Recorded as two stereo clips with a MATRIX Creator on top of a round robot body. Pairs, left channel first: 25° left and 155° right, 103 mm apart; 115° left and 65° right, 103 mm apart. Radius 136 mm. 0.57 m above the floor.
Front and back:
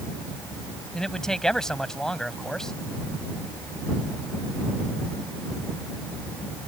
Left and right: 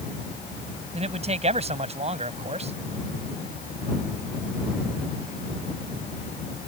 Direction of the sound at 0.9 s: 60° right.